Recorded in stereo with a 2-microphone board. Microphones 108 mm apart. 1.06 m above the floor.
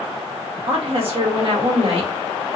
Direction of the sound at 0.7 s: 60° right (ahead or behind).